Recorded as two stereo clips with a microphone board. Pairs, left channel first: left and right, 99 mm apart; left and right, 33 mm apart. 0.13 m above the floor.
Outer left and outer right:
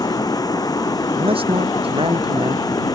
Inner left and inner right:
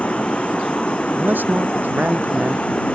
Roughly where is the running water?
Left.